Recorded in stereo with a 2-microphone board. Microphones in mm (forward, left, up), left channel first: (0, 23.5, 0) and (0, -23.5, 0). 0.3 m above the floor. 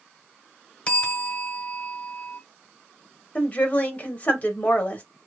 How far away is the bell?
About 1.2 m.